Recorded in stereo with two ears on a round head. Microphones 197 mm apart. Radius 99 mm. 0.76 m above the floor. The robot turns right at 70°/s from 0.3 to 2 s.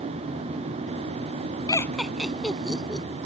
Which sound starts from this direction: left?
Laughter, at 1.7 s.